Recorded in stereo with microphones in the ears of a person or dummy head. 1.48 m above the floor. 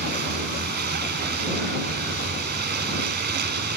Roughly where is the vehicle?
Right.